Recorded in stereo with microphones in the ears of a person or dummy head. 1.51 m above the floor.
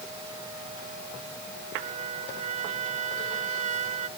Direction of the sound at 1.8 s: 45° right (ahead or behind).